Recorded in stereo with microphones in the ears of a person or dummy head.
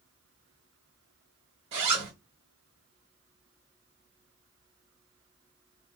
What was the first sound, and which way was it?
A zipper, 35° right (ahead or behind).